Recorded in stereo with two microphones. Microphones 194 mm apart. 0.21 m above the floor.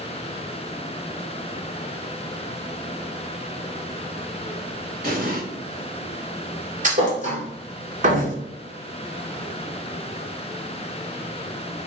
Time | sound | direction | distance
5.0 | an explosion | 45° right (ahead or behind) | 0.9 m
6.8 | a thud | 40° right (ahead or behind) | 0.9 m